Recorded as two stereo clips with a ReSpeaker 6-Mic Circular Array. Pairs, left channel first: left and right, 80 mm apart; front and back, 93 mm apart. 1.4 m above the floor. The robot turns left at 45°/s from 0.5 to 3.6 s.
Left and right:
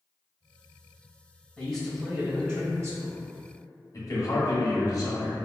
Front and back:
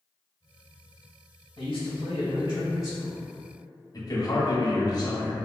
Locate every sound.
1.6 s a man speaking: 10° left, 1.4 m; by 3.2 s 65° right, 1.4 m
3.9 s a man speaking: 45° left, 0.8 m